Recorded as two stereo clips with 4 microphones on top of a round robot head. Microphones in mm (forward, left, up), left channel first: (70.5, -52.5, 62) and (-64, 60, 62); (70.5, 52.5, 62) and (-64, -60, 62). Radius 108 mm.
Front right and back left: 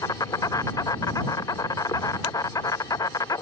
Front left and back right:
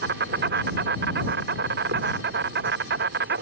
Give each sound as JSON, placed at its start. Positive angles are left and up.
{"t": 0.0, "sound": "an insect", "azimuth_deg": -110}